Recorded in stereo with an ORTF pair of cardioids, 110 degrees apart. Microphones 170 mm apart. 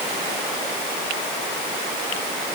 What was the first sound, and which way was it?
Only background noise.